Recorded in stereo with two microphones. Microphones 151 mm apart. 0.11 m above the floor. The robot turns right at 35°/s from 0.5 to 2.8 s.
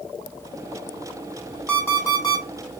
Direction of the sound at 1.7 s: 5° left (ahead or behind).